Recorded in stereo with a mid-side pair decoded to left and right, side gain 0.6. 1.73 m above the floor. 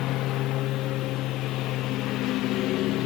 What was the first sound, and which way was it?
A lawn mower, 65° left.